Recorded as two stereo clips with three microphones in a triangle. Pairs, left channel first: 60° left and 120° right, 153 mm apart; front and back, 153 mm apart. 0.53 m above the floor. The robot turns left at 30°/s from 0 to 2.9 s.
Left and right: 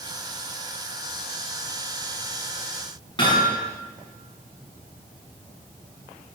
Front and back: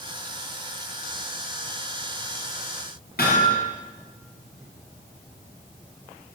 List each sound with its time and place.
3.2 s hammering: straight ahead, 8.5 m